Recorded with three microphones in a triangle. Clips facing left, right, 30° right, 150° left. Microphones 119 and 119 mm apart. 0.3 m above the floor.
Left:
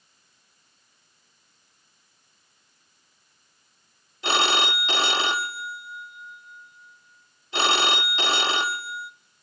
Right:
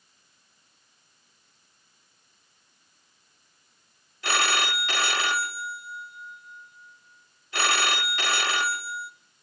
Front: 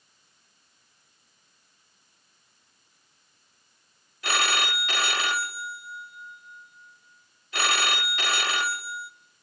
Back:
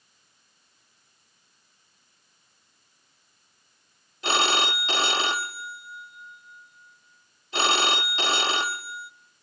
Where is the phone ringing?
125° left, 0.6 m.